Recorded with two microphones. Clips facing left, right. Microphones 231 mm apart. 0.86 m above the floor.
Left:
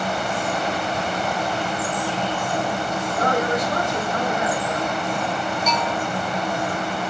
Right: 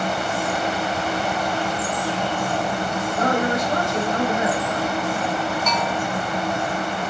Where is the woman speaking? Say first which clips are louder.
Right 1 dB; 25° right (ahead or behind), 4.5 m.